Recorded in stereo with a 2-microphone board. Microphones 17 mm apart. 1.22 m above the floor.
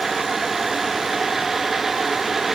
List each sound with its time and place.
Only background noise.